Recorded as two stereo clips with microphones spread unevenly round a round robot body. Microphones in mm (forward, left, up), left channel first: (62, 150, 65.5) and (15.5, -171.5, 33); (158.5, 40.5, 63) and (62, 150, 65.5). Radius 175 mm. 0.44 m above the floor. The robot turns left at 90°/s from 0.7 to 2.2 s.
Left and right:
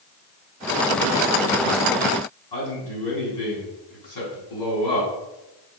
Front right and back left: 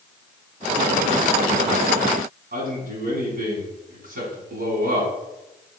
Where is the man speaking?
110° left, 5.5 m.